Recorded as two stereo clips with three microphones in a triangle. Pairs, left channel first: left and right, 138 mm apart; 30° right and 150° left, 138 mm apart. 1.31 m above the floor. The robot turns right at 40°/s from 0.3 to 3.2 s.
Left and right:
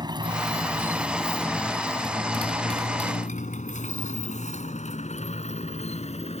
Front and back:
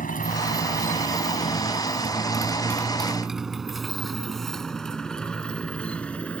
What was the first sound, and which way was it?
A motorcycle, 30° right.